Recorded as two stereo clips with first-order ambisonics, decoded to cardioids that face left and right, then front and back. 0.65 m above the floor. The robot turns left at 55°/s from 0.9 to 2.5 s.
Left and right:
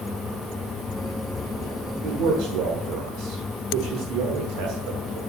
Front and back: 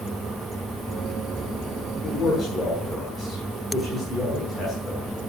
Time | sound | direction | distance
2.0 | a man speaking | 55° right | 1.8 m